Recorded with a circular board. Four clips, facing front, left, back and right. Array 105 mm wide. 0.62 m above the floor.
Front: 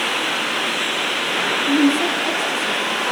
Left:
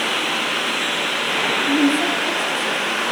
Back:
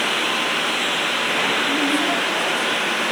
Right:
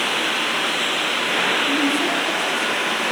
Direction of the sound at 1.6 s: 40° left.